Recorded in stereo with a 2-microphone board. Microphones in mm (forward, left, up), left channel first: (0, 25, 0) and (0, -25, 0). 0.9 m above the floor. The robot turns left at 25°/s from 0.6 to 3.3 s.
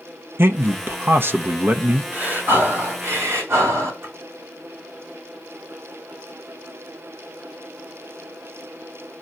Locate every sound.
0.4 s a man speaking: 90° right, 0.8 m; by 2.0 s 125° right, 0.8 m
2.1 s breathing: 35° right (ahead or behind), 4 m; by 3.9 s 65° right (ahead or behind), 4 m
4.0 s a splash: 50° right (ahead or behind), 4.5 m